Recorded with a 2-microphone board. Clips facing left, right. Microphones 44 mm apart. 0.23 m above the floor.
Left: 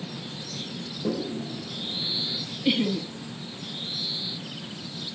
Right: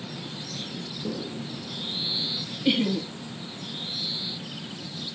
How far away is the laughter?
About 1.3 m.